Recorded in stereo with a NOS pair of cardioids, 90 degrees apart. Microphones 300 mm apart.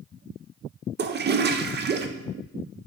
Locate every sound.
1.0 s a toilet flushing: 35° right, 0.6 m